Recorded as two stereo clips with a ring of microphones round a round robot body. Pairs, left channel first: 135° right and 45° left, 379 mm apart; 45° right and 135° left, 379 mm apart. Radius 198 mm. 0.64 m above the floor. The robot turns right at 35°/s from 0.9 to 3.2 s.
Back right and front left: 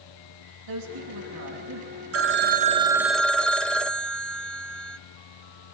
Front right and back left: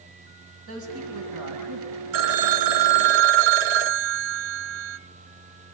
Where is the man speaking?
80° left, 6 m; by 2.0 s 120° left, 6 m.